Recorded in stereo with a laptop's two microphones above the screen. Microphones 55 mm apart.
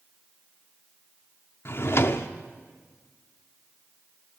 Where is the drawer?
50° left (ahead or behind), 0.6 m.